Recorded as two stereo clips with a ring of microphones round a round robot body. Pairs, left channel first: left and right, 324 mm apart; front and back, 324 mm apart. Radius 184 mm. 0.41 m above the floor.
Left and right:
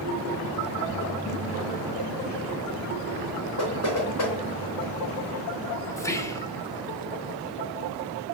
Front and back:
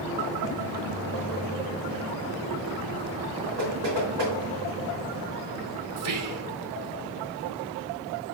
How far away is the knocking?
About 4 m.